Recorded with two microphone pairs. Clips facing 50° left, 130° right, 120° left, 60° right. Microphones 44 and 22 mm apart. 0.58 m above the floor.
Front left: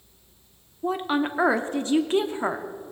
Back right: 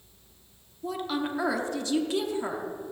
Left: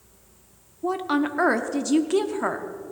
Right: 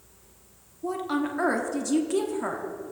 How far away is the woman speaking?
About 0.8 m.